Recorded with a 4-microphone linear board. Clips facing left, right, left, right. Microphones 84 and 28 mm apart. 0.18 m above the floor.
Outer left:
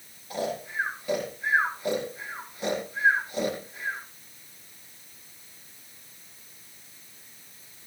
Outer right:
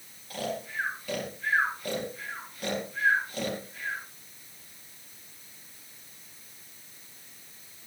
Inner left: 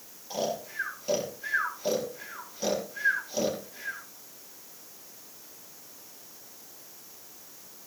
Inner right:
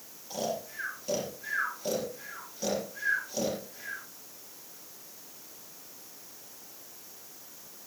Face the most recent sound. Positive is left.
turn(degrees=20)  # may be behind; listen again after turning